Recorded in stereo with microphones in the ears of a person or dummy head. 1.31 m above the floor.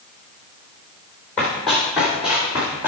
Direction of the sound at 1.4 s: 10° left (ahead or behind).